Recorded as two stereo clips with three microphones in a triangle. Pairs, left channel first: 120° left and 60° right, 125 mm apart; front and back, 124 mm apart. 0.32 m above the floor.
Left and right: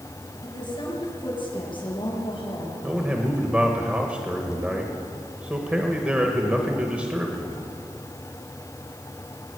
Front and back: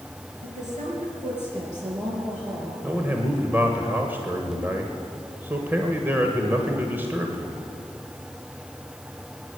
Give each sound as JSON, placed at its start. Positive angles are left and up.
{"t": 0.4, "sound": "a woman speaking", "azimuth_deg": 170, "distance_m": 5.0}
{"t": 2.8, "sound": "a man speaking", "azimuth_deg": -125, "distance_m": 1.3}